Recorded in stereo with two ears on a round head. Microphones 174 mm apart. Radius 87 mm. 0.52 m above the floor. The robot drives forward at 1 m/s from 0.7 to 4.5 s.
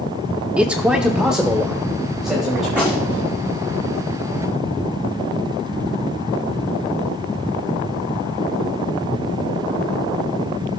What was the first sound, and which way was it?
A man speaking, 5° right (ahead or behind).